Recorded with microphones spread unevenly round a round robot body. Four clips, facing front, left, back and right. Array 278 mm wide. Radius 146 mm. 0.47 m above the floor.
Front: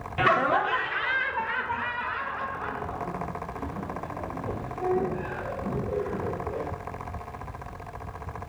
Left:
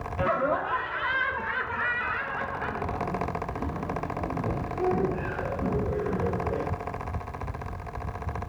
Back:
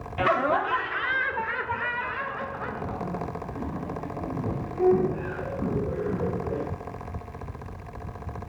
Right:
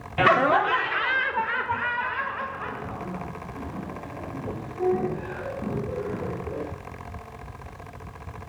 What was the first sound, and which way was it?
Laughter, 90° right.